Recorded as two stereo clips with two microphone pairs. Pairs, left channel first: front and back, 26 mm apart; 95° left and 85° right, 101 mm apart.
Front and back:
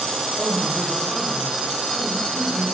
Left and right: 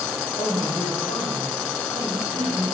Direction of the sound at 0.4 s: 130° left.